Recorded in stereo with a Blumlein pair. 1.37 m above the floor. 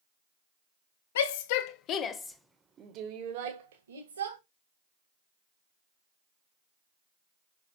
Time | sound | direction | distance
1.1 | a shout | 55° left | 1.5 m